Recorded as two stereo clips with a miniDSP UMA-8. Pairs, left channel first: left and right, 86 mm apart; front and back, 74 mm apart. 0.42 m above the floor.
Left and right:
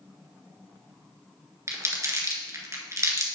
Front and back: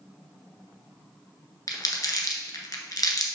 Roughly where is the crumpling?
Ahead right.